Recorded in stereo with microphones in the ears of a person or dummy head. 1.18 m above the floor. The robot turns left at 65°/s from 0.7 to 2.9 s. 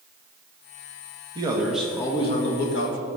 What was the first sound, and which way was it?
A man speaking, 150° right.